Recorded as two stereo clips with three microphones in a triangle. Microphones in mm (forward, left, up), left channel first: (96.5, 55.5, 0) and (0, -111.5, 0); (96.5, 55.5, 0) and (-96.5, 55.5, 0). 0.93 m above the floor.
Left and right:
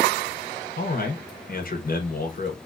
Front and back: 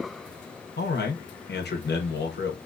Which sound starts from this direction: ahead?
A man speaking, at 0.8 s.